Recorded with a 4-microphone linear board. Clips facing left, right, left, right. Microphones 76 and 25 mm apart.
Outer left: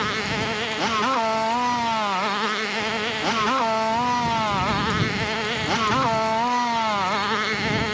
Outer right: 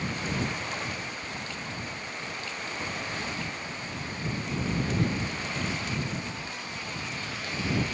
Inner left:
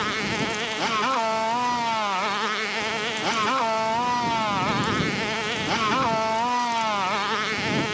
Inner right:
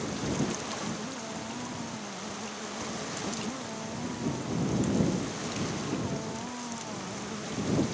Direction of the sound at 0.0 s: 85° left.